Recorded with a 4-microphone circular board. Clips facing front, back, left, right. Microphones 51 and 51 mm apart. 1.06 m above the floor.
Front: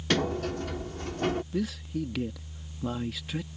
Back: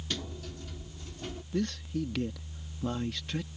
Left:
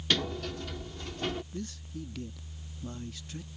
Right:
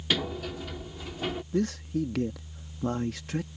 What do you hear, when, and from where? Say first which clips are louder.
0.1 s a sliding door: front 13 dB, right 1 dB; 10° right
1.5 s a man speaking: front 1 dB, right 12 dB; 85° right